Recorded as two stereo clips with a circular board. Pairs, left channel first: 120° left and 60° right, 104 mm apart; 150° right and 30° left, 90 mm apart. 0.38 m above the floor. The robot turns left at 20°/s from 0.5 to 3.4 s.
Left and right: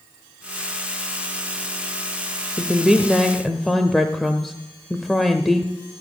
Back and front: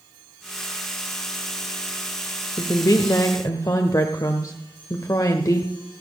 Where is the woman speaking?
135° right, 1.0 m; by 5.7 s 155° right, 1.0 m.